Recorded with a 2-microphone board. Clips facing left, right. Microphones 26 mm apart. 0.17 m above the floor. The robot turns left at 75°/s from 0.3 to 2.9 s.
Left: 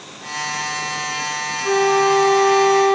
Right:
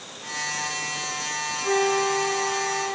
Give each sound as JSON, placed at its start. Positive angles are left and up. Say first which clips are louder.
{"t": 1.6, "sound": "a flute", "louder": "left 7 dB", "azimuth_deg": 165, "distance_m": 0.7}